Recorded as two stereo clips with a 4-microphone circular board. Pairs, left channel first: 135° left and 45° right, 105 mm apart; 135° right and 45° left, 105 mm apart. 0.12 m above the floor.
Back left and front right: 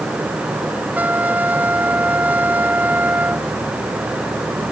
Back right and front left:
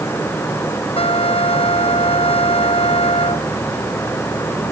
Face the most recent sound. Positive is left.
turn(degrees=-120)